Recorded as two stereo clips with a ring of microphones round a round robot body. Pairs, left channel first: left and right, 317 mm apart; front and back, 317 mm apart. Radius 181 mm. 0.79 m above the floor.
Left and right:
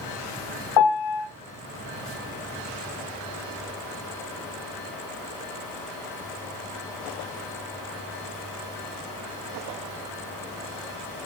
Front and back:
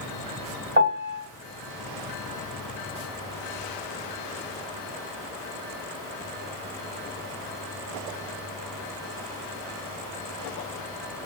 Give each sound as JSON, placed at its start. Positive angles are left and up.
{"t": 0.8, "sound": "a piano", "azimuth_deg": 120, "distance_m": 1.3}